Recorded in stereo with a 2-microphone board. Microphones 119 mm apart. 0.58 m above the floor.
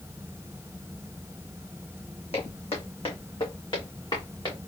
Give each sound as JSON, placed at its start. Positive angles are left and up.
{"t": 2.3, "sound": "footsteps", "side_deg": 55, "distance_m": 2.0}